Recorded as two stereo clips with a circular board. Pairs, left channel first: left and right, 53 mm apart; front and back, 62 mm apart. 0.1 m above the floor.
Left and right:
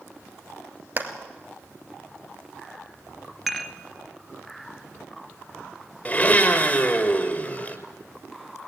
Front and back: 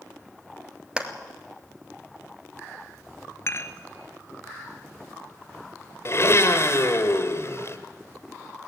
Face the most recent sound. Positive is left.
turn(degrees=30)